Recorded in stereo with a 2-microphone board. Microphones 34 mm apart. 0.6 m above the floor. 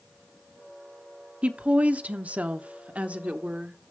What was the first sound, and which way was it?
A woman speaking, 40° right (ahead or behind).